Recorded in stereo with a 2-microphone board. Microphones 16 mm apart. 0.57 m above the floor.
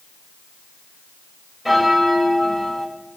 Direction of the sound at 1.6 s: 10° right (ahead or behind).